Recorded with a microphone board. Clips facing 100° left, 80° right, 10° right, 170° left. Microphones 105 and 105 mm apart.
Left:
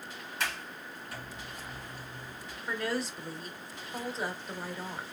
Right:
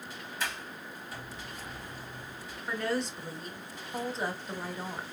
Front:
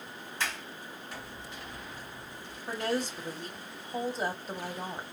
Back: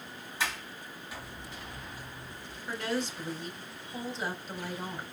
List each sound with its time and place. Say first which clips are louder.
0.4 s a sliding door: left 1 dB, back 1 dB; 85° left, 2 m
2.7 s a woman speaking: right 1 dB, front 2 dB; 15° left, 1.2 m